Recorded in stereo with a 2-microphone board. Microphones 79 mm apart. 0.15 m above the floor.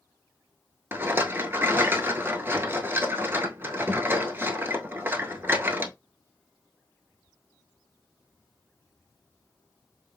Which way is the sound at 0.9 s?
30° right (ahead or behind).